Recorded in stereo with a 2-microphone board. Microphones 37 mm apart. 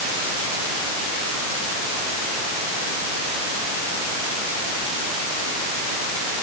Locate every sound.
Only background noise.